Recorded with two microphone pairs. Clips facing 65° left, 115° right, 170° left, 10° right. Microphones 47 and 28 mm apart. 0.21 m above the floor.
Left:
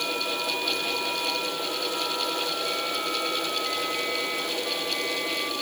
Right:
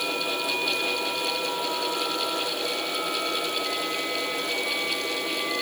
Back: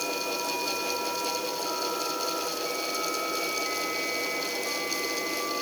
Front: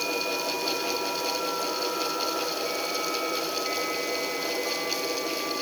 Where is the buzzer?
I don't hear a buzzer.